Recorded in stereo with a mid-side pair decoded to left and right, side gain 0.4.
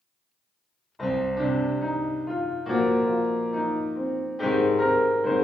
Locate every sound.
1.0 s a piano: 15° left, 1.0 m